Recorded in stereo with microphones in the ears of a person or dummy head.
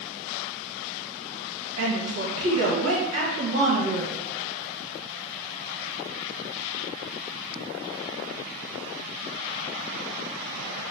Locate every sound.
1.8 s a woman speaking: 85° right, 1.5 m